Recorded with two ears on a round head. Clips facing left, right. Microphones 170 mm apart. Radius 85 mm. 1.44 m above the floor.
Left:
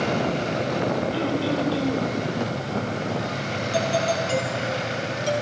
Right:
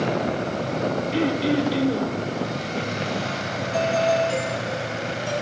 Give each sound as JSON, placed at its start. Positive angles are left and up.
{"t": 1.1, "sound": "throat clearing", "side_deg": -20, "distance_m": 3.5}
{"t": 3.7, "sound": "a doorbell", "side_deg": 50, "distance_m": 6.0}